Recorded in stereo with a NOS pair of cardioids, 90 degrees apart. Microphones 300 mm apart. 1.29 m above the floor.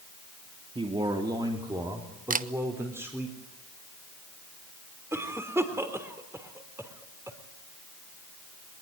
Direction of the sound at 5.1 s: 10° right.